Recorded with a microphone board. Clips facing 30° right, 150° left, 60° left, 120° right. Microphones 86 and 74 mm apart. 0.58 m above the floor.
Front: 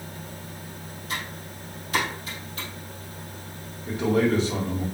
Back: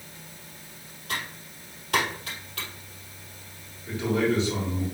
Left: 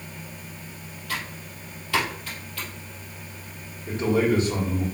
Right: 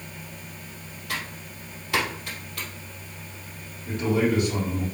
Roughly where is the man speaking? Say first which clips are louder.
Front 3 dB, left 1 dB; ahead.